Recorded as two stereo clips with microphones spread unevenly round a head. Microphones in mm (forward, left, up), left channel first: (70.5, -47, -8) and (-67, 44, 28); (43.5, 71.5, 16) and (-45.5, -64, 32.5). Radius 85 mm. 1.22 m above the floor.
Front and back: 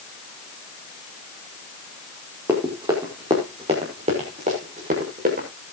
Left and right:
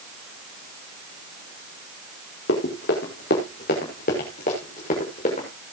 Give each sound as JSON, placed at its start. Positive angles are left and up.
{"t": 2.5, "sound": "running footsteps", "azimuth_deg": 75, "distance_m": 5.0}